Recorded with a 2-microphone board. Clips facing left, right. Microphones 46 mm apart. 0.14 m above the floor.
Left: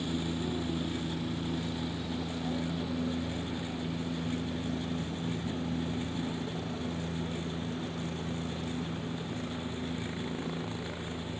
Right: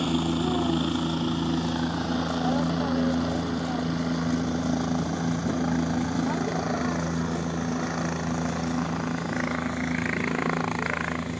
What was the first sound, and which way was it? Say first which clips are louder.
A helicopter: right 8 dB; 65° right (ahead or behind).